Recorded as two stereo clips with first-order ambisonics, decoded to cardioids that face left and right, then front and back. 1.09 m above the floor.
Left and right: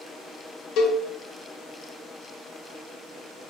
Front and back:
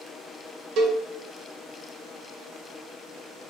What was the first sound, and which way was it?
A cowbell, 135° left.